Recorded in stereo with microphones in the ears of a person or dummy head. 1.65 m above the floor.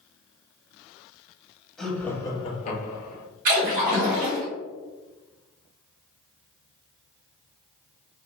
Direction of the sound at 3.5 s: 50° right (ahead or behind).